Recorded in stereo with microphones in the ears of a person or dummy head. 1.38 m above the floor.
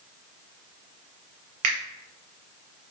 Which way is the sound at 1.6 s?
35° right (ahead or behind).